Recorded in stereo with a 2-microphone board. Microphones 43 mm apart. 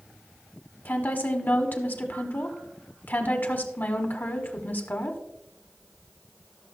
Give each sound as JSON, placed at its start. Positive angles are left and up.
{"t": 0.8, "sound": "a woman speaking", "side_deg": 45, "distance_m": 1.5}